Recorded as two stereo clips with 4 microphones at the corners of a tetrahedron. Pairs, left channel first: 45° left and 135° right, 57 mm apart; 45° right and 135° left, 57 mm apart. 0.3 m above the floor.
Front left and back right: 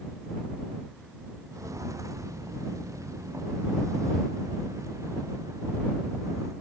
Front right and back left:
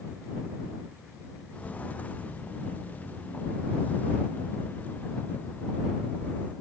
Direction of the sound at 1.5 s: 110° right.